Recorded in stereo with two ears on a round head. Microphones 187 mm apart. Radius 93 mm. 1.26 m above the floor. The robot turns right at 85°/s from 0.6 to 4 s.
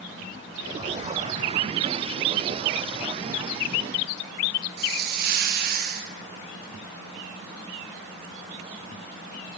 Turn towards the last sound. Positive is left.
turn(degrees=-50)  # may be behind; listen again after turning